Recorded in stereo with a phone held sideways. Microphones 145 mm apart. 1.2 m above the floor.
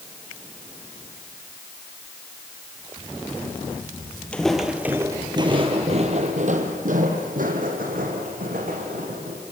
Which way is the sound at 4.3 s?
5° left (ahead or behind).